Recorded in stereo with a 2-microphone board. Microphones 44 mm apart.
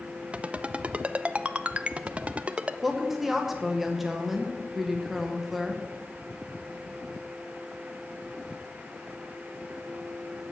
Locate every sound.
0.3 s a ringtone: 30° right (ahead or behind), 0.6 m
2.8 s a woman speaking: 5° right (ahead or behind), 1.7 m